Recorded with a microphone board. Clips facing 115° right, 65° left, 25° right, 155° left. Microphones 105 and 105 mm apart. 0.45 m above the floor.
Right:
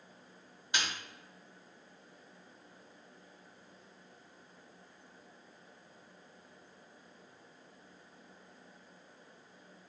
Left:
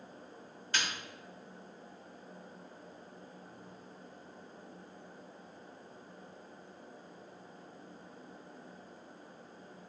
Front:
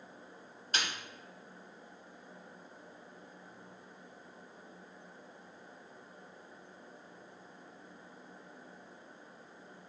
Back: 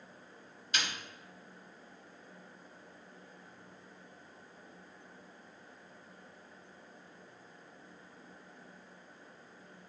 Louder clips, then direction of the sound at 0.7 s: Even, front 1 dB; 45° right.